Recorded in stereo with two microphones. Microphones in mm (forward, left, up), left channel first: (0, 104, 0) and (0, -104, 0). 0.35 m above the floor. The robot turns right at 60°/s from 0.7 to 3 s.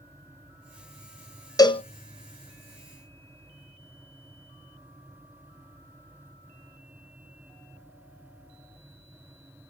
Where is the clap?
I don't hear a clap.